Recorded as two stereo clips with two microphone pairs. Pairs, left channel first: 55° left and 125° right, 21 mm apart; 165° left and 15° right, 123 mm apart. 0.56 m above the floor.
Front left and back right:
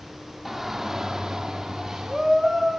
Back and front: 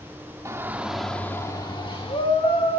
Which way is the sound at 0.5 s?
65° right.